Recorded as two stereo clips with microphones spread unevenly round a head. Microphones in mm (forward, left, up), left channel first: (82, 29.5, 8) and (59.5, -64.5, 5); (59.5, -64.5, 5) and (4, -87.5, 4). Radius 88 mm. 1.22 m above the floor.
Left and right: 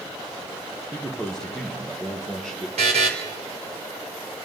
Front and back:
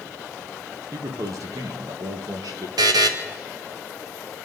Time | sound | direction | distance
0.9 | a man speaking | 165° left | 1.2 m
2.8 | a buzzer | 160° right | 1.1 m